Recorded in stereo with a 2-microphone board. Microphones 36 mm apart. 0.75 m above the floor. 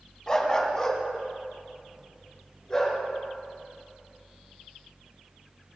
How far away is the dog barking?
About 1.8 m.